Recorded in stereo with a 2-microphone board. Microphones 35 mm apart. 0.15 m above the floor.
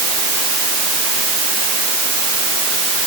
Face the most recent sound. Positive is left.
No sound to turn to.